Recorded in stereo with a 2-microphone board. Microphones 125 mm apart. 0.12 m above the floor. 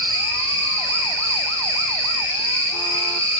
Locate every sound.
0.0 s an insect: 30° right (ahead or behind), 1.9 m